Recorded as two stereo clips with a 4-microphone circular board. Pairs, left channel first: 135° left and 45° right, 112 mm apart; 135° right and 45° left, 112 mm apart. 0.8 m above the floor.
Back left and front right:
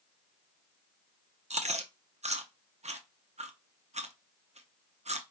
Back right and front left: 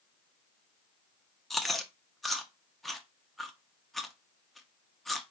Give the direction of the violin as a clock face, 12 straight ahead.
No violin in this recording.